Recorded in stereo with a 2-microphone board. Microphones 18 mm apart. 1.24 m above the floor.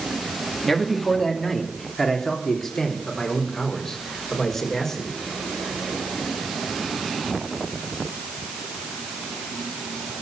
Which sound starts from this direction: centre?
A man speaking, at 0.7 s.